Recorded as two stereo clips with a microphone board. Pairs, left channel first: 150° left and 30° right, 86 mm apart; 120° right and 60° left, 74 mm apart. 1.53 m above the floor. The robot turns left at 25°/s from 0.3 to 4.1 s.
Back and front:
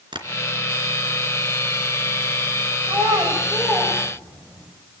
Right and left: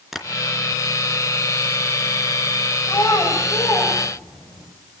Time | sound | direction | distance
0.1 | tapping | 25° right | 3 m
2.9 | a child speaking | 75° right | 5.5 m